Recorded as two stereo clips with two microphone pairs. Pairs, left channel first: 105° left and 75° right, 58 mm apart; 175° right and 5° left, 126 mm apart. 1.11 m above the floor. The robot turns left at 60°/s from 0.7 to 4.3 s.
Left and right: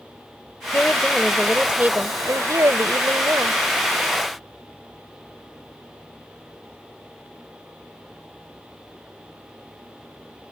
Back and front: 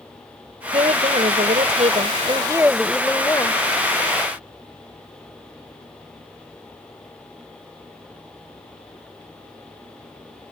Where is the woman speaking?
50° left; by 3.6 s 125° right.